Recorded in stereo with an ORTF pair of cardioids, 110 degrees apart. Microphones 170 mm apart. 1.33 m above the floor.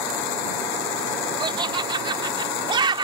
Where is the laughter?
25° right.